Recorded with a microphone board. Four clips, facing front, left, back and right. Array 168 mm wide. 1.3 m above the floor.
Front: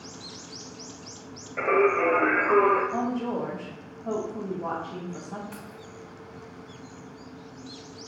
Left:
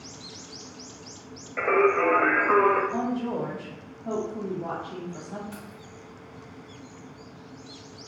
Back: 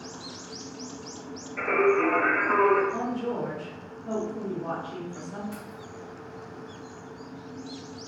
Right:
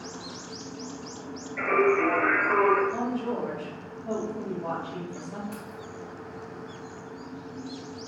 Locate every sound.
1.6 s singing: 55° left, 1.2 m
2.9 s a woman speaking: 25° left, 1.8 m
5.5 s keys jangling: 15° left, 1.9 m